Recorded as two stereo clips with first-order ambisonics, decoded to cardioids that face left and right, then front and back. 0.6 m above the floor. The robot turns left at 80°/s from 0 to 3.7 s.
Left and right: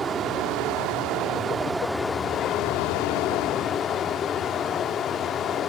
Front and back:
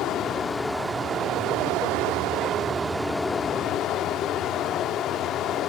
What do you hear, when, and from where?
0.0 s running water: 25° right, 0.8 m; by 5.7 s 35° left, 0.8 m